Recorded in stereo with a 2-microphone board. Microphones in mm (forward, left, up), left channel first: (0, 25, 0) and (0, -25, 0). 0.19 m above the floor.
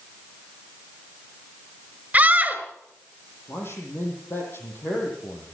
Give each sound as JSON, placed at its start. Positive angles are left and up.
{"t": 2.1, "sound": "a scream", "side_deg": -30, "distance_m": 3.5}
{"t": 3.5, "sound": "a man speaking", "side_deg": 50, "distance_m": 7.5}